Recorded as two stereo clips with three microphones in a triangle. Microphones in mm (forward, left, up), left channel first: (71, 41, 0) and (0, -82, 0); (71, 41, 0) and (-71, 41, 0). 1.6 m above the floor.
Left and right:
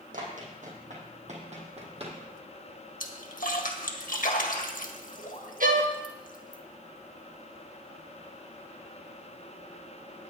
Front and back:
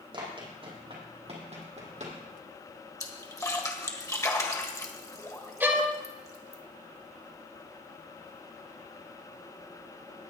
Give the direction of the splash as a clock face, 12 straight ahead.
10 o'clock.